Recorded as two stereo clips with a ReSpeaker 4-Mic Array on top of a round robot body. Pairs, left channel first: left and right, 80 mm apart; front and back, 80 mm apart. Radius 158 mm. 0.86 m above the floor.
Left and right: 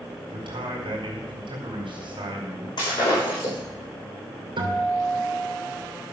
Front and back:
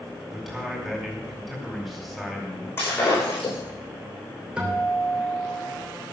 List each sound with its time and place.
0.3 s a man speaking: 90° right, 4.5 m
2.8 s breaking glass: 60° left, 9 m
4.6 s a guitar: 100° right, 3 m